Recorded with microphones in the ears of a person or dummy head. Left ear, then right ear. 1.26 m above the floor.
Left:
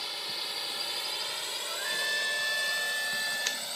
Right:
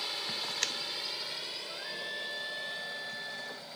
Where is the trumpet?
80° left.